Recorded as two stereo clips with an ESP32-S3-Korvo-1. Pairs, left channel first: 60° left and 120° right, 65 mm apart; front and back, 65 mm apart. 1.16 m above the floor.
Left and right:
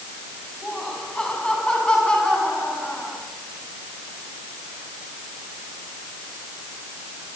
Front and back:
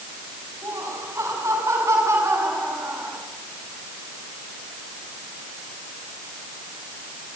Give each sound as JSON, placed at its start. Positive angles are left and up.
{"t": 0.6, "sound": "laughter", "azimuth_deg": 140, "distance_m": 8.0}